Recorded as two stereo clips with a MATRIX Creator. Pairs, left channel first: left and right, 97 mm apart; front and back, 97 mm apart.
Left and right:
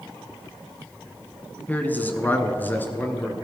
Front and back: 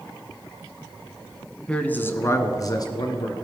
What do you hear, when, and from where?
1.7 s a man speaking: 60° left, 1.1 m; by 3.4 s 25° left, 1.8 m